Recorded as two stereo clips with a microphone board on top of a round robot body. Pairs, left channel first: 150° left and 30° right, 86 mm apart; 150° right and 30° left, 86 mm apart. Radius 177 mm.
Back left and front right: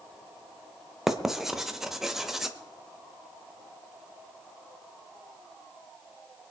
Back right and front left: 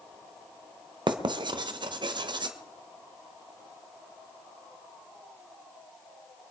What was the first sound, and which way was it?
Writing, 55° left.